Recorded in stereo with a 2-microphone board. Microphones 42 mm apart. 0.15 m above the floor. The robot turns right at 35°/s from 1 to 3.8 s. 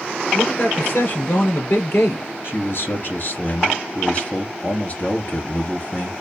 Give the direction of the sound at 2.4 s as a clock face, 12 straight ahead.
9 o'clock.